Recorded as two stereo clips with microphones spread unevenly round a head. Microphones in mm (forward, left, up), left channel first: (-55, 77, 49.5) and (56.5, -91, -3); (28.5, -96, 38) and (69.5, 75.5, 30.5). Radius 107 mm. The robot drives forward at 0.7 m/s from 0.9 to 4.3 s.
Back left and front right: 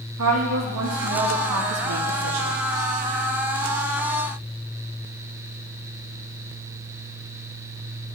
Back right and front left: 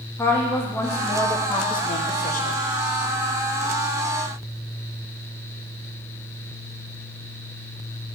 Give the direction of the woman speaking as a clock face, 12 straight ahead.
1 o'clock.